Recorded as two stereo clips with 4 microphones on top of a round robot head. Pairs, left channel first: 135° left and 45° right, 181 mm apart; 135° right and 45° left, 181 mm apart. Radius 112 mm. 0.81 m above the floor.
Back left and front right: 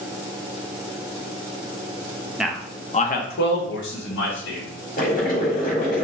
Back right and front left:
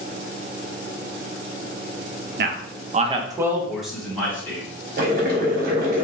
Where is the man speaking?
40° left, 0.6 m; by 4.6 s 145° left, 1.4 m.